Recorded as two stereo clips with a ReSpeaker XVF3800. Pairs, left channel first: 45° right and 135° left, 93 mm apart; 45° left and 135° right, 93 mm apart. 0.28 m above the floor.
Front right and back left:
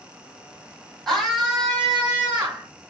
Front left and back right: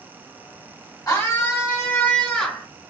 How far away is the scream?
About 1.7 m.